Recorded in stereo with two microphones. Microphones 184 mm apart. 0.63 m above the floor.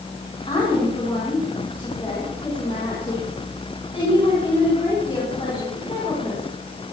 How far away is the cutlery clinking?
No cutlery clinking in this recording.